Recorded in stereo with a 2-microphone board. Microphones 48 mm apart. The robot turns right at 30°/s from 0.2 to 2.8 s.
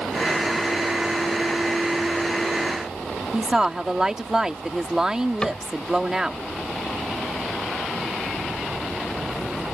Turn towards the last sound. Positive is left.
turn(degrees=20)  # may be behind; listen again after turning